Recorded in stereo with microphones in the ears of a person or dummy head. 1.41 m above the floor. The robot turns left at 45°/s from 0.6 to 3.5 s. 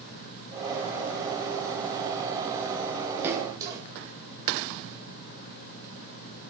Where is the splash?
5° right (ahead or behind), 1.9 m; by 3.8 s 20° right (ahead or behind), 1.9 m.